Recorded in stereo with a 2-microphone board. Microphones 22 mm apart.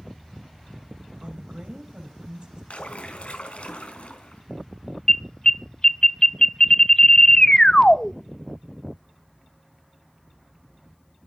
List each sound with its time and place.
1.2 s a woman speaking: 45° right (ahead or behind), 2.5 m
2.7 s a splash: 75° left (ahead or behind), 4 m
5.1 s an alarm: 30° left (ahead or behind), 0.6 m